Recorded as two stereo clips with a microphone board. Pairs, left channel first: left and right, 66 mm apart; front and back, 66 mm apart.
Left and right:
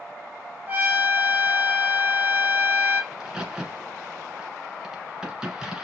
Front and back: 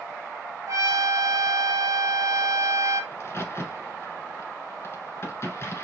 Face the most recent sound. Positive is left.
turn(degrees=-10)